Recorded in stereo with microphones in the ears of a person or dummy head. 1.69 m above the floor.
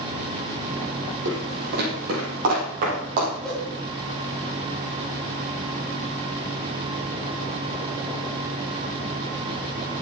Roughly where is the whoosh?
Centre.